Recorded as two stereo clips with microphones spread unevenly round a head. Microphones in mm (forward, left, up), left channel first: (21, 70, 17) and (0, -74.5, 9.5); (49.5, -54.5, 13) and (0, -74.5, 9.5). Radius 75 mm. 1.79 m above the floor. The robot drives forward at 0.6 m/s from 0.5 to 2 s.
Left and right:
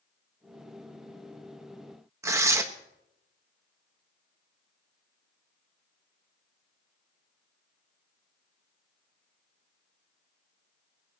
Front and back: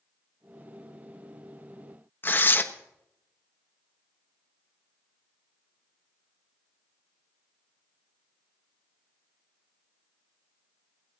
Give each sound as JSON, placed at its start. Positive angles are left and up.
{"t": 2.2, "sound": "tearing paper", "azimuth_deg": -25, "distance_m": 1.1}